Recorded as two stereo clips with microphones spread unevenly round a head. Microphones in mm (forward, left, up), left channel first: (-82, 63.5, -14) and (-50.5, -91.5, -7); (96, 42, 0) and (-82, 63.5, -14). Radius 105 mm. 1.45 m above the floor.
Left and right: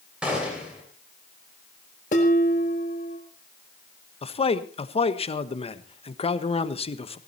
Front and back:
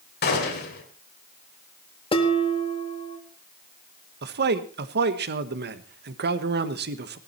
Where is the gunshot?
5° left, 3 m.